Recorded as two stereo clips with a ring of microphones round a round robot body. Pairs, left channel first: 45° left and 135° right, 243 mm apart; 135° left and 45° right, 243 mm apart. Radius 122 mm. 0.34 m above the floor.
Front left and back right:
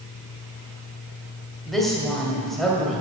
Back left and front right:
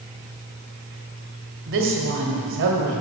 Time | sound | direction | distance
1.7 | a woman speaking | 45° right | 1.8 m